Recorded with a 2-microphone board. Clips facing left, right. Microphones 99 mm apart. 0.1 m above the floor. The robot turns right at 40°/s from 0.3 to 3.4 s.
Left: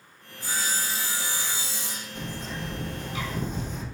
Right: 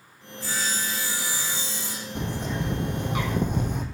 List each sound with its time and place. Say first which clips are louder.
0.4 s sawing: right 1 dB; 120° left, 3 m; by 2.0 s 175° right, 3 m
2.1 s a bird: right 6 dB; 115° right, 1.0 m; by 3.8 s 65° right, 1.0 m